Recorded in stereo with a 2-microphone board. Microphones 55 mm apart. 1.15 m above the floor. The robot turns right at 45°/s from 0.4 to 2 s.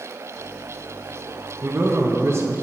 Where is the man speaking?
35° right (ahead or behind), 1.3 m; by 2.5 s 50° right (ahead or behind), 1.3 m.